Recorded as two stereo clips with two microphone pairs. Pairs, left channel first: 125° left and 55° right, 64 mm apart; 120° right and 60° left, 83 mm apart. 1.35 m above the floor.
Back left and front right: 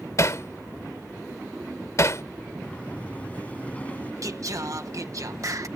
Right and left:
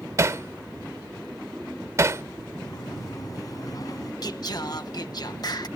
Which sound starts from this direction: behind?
A sliding door, at 2.6 s.